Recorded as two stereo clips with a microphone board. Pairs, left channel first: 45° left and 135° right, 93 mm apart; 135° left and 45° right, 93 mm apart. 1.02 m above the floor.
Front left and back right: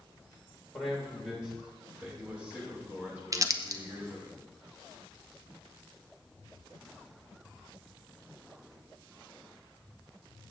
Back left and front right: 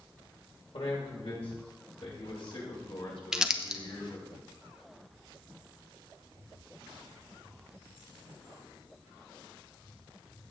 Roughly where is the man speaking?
Behind left.